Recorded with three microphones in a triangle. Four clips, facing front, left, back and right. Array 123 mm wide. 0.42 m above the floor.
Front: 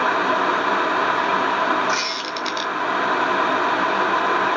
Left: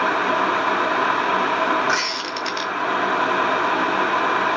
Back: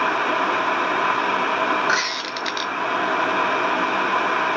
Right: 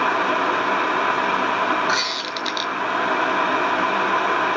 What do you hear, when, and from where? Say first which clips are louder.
1.9 s a squeak: left 1 dB, even; 165° left, 0.8 m